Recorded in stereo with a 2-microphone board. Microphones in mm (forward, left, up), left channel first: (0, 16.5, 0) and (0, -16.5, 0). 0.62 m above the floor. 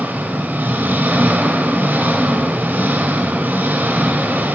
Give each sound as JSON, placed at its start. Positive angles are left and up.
{"t": 0.0, "sound": "an engine running", "side_deg": -70, "distance_m": 3.0}